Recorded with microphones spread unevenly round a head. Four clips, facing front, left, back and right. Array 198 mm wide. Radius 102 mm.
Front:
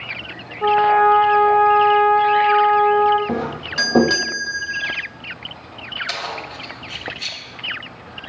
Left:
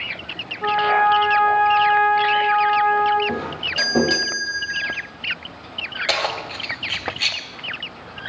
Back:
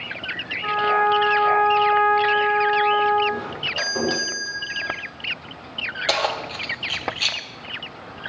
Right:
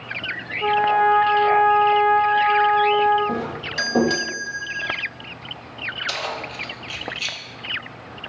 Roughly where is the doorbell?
Ahead.